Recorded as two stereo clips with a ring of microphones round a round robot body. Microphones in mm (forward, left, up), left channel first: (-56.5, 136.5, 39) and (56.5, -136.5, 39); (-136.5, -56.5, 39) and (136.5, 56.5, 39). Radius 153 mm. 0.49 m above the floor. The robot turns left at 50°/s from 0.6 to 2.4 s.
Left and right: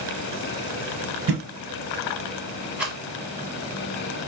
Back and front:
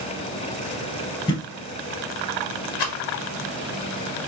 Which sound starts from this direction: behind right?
A rattle, at 2.8 s.